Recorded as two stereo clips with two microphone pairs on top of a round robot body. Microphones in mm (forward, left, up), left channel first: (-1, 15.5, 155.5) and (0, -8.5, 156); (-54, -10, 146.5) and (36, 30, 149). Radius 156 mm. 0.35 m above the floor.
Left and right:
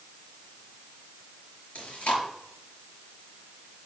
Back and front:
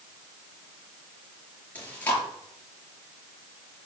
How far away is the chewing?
About 5 m.